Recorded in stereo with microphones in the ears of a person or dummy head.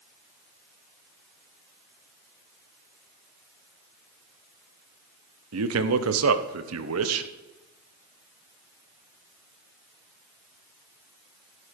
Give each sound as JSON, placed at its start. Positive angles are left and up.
{"t": 5.5, "sound": "a man speaking", "side_deg": -85, "distance_m": 0.9}